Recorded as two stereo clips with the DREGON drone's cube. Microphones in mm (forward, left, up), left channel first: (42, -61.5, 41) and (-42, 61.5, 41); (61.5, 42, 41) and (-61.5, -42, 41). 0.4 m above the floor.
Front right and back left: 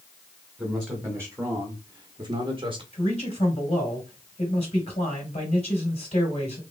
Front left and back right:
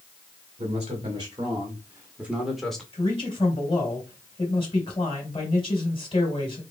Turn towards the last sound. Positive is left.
turn(degrees=-15)